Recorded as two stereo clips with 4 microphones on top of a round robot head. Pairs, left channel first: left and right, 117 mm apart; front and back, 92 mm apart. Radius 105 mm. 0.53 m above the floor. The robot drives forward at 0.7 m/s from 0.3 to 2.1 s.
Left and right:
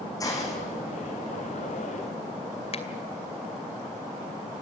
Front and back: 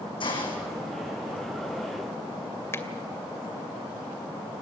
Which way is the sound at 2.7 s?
60° left.